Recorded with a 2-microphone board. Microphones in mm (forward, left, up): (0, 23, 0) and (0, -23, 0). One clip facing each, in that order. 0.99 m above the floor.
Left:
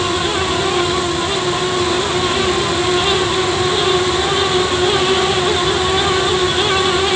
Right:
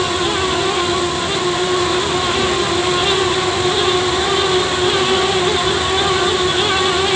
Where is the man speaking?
No man speaking in this recording.